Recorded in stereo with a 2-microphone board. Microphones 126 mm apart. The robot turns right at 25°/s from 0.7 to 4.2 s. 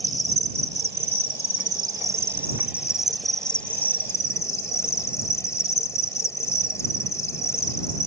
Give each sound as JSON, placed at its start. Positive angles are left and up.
{"t": 0.0, "sound": "an insect", "azimuth_deg": -60}